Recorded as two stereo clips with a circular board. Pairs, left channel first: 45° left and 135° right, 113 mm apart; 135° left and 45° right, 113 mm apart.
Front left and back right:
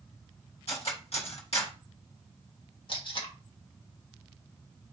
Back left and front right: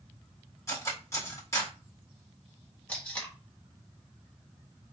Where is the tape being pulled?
60° left, 1.3 m.